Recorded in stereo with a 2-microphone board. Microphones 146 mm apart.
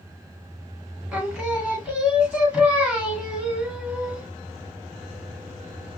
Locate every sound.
1.1 s singing: 5° right (ahead or behind), 1.6 m